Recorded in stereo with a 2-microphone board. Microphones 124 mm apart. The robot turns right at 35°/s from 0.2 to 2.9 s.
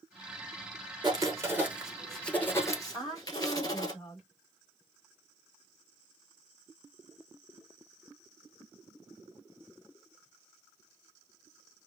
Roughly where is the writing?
Ahead right.